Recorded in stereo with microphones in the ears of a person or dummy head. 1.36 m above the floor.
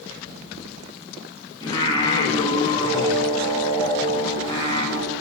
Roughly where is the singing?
Left.